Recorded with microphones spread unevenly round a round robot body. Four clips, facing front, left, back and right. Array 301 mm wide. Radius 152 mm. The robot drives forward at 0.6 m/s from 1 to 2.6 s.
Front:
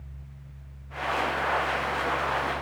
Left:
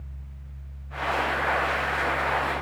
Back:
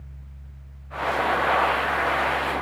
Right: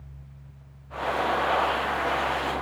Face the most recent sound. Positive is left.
No sound to turn to.